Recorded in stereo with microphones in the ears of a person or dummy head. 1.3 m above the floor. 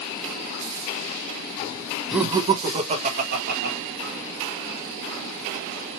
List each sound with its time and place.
2.1 s laughter: centre (ahead or behind), 0.7 m; by 3.8 s 60° right (ahead or behind), 1.5 m